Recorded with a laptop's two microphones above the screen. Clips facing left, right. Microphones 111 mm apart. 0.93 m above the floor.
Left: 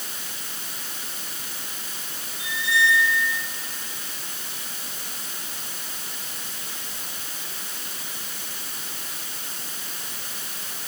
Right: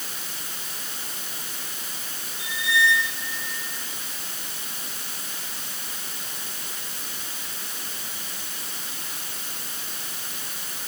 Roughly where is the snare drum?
I don't hear a snare drum.